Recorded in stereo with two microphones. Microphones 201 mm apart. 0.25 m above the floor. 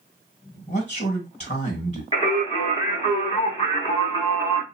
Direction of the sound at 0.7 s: 35° left (ahead or behind).